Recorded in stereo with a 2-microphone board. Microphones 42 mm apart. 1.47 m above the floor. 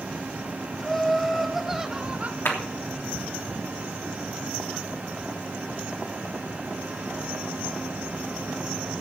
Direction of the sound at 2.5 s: 70° left (ahead or behind).